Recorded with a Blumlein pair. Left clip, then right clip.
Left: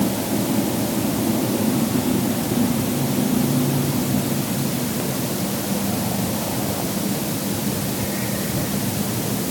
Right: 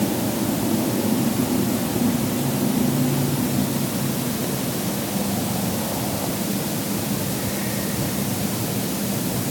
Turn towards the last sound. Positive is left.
No sound to turn to.